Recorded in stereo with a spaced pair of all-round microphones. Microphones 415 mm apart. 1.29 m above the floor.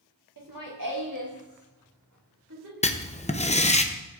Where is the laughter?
50° right (ahead or behind), 1.8 m; by 2.7 s 40° right (ahead or behind), 3 m.